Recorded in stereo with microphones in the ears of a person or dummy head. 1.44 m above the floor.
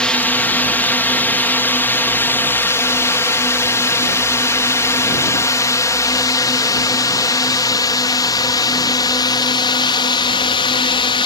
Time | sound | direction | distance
0.0 | a drone | 5° left (ahead or behind) | ?